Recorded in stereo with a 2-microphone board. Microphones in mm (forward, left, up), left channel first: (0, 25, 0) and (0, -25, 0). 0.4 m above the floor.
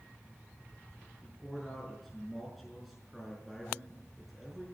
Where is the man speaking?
Centre (ahead or behind), 5.5 m.